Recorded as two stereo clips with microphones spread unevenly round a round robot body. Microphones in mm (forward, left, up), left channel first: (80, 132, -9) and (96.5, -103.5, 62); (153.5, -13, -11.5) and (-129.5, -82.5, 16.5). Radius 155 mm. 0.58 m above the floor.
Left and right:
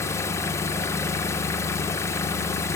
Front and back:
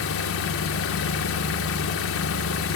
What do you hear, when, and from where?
0.0 s an engine running: 30° left, 1.5 m